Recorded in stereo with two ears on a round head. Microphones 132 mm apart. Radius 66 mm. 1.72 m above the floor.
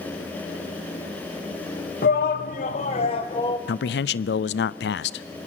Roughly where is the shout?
Left.